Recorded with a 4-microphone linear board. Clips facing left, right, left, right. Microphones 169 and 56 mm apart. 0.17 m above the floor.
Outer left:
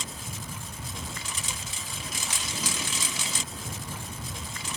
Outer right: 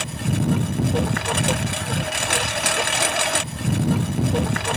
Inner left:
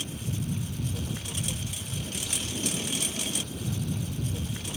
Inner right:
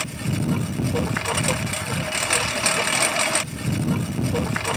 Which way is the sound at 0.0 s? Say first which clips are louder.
Outer right 17 dB, inner right 9 dB; 70° right (ahead or behind).